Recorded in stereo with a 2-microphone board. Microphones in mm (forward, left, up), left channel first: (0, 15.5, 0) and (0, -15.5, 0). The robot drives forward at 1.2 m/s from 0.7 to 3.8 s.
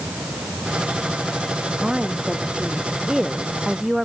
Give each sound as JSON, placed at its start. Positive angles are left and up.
{"t": 1.8, "sound": "a woman speaking", "side_deg": -15}